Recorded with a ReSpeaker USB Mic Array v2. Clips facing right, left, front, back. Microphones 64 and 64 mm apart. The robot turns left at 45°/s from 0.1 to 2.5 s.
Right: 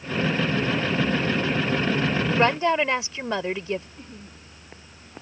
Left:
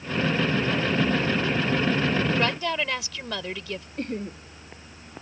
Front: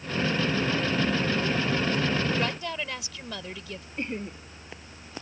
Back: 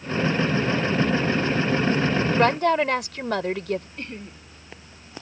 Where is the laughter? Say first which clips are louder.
Left 12 dB, front 3 dB; 70° left.